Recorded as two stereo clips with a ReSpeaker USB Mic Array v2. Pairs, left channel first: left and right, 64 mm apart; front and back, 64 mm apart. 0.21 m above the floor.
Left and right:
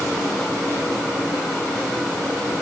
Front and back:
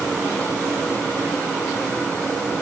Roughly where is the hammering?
I don't hear hammering.